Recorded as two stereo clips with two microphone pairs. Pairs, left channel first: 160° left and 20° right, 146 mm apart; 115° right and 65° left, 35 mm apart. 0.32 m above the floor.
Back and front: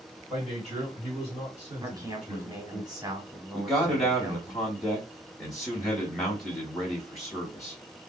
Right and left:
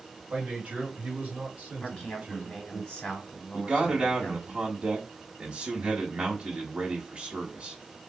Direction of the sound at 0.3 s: 20° left.